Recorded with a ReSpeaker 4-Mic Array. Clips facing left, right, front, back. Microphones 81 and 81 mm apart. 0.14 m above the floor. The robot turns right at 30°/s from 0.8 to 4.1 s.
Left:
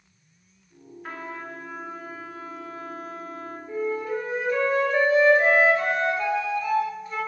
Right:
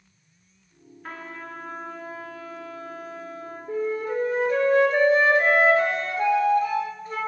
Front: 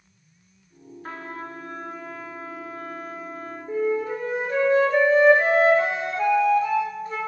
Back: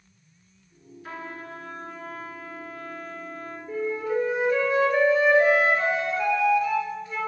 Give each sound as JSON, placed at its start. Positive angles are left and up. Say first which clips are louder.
{"t": 1.0, "sound": "a trumpet", "louder": "left 2 dB, front 2 dB", "azimuth_deg": 5, "distance_m": 1.0}
{"t": 3.7, "sound": "a flute", "louder": "right 1 dB, front 3 dB", "azimuth_deg": -60, "distance_m": 1.6}